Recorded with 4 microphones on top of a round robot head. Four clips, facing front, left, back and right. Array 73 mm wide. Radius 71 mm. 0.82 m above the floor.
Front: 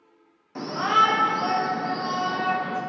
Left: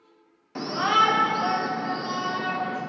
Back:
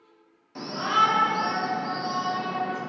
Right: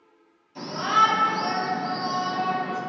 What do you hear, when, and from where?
0.6 s a shout: 65° left, 2.5 m; by 2.8 s 30° left, 3.5 m